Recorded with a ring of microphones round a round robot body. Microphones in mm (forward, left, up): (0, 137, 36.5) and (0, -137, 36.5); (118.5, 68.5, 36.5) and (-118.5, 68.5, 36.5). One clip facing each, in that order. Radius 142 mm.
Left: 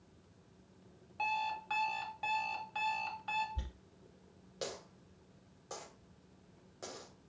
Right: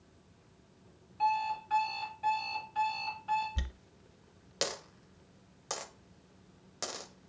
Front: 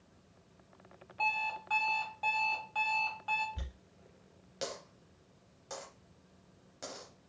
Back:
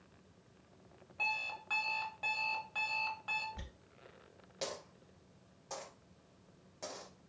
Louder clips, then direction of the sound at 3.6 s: Right 4 dB, front 1 dB; 75° right.